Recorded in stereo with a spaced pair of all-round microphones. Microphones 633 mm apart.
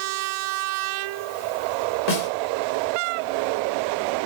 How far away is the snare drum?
About 1.8 m.